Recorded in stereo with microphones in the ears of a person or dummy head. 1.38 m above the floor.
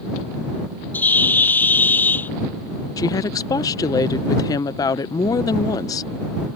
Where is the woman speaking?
15° left (ahead or behind).